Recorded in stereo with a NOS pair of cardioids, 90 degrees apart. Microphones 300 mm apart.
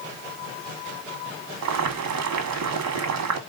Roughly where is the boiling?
Ahead right.